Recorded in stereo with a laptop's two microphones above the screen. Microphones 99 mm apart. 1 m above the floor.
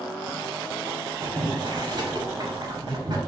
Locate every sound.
1.2 s boiling: 45° right (ahead or behind), 1.1 m